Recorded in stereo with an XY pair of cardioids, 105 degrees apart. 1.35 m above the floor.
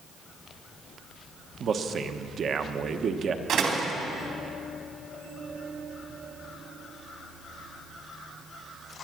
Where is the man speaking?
50° right, 1.1 m.